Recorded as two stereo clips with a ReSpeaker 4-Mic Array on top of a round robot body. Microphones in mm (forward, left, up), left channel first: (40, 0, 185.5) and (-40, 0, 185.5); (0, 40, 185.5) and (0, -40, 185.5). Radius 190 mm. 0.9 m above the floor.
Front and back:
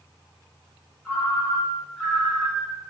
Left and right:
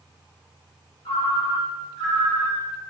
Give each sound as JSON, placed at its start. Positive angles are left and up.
{"t": 1.1, "sound": "a ringtone", "azimuth_deg": 90, "distance_m": 0.6}